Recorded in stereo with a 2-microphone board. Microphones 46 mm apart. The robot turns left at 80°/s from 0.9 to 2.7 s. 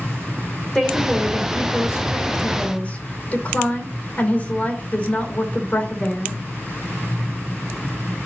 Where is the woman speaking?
175° left, 2.5 m; by 6.4 s 35° left, 2.5 m.